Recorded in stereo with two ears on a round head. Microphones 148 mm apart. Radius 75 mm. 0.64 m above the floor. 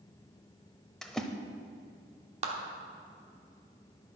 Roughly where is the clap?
Right.